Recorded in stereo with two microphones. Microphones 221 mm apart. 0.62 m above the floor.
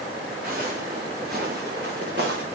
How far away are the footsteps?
About 4 m.